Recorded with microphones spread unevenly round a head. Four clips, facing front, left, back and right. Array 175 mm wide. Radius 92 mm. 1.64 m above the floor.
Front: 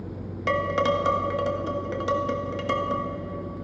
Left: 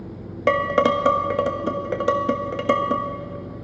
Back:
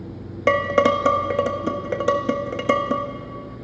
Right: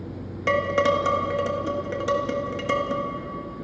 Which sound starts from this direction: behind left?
Dishes clattering, at 0.5 s.